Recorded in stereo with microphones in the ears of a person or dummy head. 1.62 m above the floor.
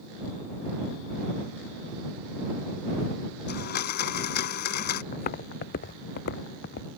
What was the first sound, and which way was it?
A blender, 50° left (ahead or behind).